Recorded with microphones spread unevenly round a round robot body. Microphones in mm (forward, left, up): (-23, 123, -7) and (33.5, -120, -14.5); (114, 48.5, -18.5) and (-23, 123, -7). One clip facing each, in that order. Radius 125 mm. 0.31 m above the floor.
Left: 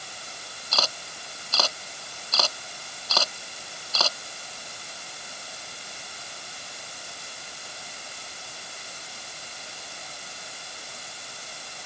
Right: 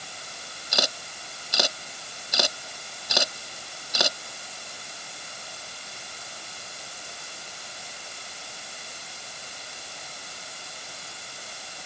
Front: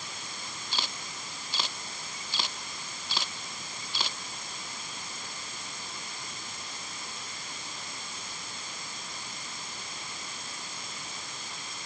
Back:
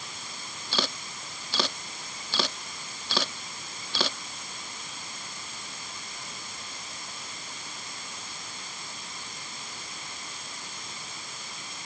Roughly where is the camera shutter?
Behind right.